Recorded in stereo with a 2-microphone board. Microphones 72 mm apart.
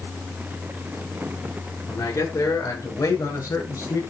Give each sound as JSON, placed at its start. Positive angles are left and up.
{"t": 1.9, "sound": "a man speaking", "side_deg": 50, "distance_m": 6.0}